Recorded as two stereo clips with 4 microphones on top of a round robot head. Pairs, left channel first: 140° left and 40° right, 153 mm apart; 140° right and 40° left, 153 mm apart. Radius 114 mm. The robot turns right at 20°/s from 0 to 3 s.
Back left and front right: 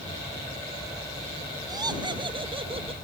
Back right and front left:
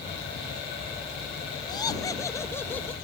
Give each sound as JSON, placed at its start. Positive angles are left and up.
{"t": 1.7, "sound": "laughter", "azimuth_deg": -90}